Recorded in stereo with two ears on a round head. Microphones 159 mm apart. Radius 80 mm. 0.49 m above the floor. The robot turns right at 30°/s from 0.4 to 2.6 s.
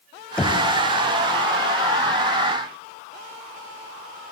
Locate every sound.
0.4 s knocking: 5° left (ahead or behind), 2 m; by 0.6 s centre (ahead or behind), 2 m